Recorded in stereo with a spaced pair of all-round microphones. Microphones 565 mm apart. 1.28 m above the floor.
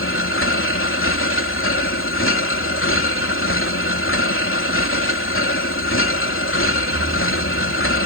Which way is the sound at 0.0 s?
20° left (ahead or behind).